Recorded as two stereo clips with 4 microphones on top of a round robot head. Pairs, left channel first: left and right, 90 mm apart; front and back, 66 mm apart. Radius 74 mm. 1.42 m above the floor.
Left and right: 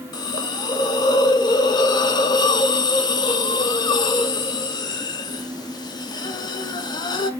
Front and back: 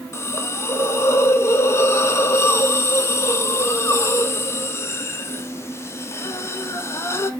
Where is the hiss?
50° left, 1.1 m.